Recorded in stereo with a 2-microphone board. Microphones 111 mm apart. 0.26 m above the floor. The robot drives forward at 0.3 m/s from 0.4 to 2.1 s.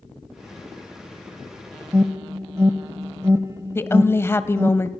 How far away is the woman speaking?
About 1.1 m.